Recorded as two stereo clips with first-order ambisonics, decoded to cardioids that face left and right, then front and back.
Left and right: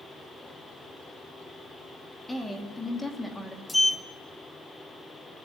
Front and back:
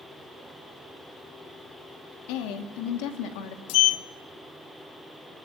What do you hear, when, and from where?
2.3 s a woman speaking: 10° left, 2.5 m
3.7 s a sliding door: 10° left, 0.7 m